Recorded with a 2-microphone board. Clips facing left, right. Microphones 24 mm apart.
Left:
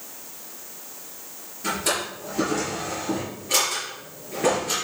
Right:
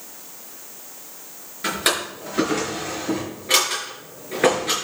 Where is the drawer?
85° right, 5 m.